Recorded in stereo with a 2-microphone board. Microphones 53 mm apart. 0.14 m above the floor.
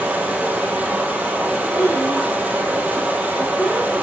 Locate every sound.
0.0 s running water: 20° right (ahead or behind), 2.5 m
1.7 s a child speaking: 80° left, 5.5 m